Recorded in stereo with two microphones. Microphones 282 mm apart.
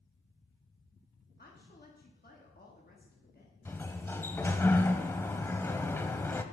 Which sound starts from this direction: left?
A woman speaking, at 1.4 s.